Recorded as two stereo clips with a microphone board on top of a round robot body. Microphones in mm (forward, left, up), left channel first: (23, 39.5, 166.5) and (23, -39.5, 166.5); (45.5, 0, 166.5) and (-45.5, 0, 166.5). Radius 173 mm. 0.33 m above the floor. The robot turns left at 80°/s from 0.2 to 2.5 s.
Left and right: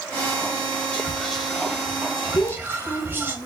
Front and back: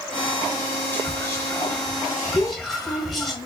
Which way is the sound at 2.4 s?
55° left.